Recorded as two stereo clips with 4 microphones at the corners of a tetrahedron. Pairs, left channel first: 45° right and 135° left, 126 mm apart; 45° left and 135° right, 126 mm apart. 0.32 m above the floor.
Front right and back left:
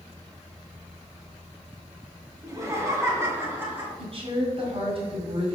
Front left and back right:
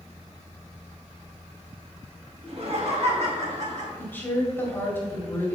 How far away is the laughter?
About 2.5 m.